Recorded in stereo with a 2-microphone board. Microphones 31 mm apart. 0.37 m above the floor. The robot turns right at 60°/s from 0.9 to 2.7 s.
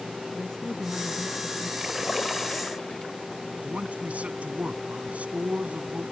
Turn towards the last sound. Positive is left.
turn(degrees=-50)  # may be behind; listen again after turning